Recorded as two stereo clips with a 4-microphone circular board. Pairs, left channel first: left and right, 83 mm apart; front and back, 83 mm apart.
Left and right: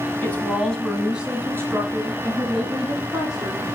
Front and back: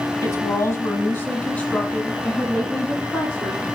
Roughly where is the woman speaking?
Ahead left.